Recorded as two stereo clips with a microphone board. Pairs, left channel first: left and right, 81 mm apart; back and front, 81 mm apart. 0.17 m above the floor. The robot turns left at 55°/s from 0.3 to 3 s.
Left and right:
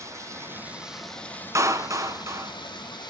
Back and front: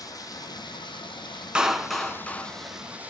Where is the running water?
140° right, 5.5 m; by 3.1 s 70° left, 5.5 m.